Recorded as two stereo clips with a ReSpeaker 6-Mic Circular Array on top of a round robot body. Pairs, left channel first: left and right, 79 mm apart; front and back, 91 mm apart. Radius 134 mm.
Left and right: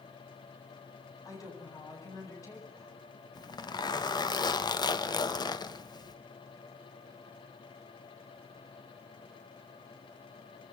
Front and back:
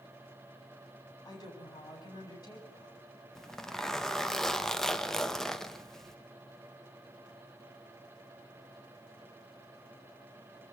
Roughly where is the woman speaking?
Ahead left.